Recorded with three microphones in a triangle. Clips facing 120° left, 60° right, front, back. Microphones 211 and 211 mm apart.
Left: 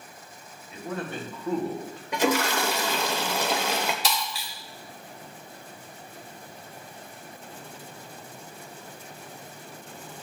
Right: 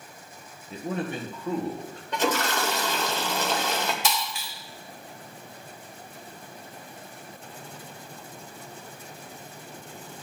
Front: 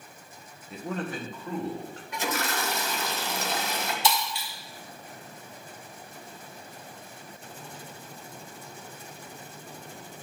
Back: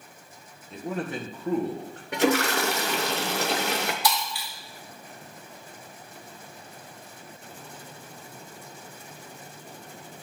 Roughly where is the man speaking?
Right.